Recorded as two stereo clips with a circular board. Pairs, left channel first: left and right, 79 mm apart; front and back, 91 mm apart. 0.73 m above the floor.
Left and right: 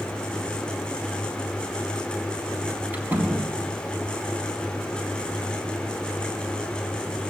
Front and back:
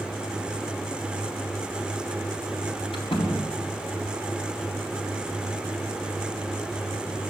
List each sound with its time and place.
2.9 s a door slam: 20° right, 5 m